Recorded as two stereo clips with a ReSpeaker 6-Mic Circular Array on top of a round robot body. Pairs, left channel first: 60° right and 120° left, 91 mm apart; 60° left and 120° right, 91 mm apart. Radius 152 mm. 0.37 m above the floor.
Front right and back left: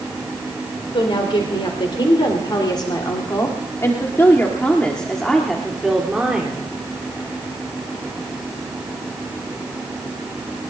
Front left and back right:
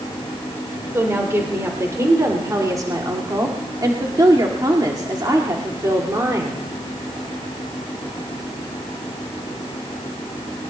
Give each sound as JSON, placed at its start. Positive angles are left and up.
{"t": 0.9, "sound": "a woman speaking", "azimuth_deg": -60, "distance_m": 3.0}